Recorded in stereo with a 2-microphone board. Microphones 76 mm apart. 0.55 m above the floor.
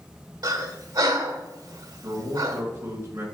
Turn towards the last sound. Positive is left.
turn(degrees=-40)  # may be behind; listen again after turning